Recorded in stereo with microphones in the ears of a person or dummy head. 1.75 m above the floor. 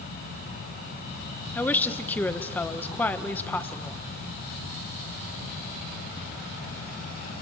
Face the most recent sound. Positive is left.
turn(degrees=10)  # may be behind; listen again after turning